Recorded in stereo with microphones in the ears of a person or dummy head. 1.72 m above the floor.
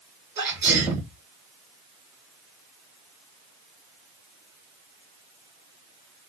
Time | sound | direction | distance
0.4 | a sneeze | 10° right (ahead or behind) | 2 m